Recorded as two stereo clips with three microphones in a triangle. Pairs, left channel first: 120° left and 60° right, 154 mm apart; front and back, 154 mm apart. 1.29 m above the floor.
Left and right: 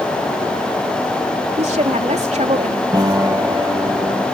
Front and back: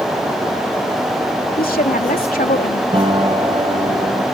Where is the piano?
130° right.